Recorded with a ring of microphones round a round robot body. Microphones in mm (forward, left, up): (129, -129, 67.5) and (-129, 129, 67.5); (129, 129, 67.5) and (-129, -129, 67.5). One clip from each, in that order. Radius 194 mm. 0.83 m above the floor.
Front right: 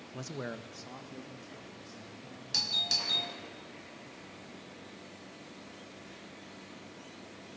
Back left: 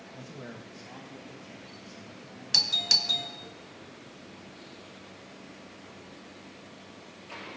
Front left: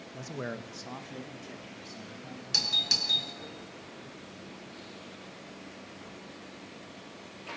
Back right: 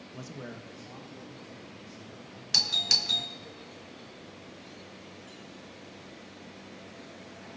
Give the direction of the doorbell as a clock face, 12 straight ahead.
6 o'clock.